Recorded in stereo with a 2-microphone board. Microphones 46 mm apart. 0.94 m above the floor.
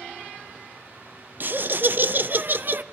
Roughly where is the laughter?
Right.